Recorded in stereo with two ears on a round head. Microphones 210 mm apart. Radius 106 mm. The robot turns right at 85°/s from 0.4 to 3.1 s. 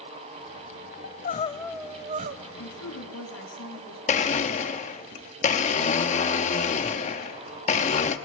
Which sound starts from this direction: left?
A blender, at 4.1 s.